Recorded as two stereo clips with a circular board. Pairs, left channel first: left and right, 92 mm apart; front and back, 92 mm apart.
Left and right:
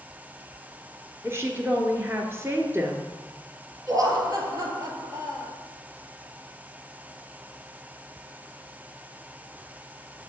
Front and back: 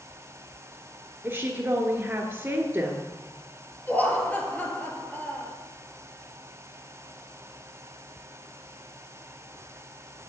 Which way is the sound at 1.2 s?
130° right.